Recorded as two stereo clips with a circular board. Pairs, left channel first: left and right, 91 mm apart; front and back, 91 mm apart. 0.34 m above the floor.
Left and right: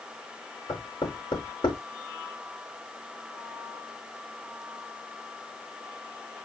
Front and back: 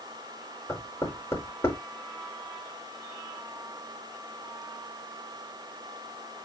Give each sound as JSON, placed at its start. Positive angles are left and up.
{"t": 0.7, "sound": "knocking", "azimuth_deg": 60, "distance_m": 4.0}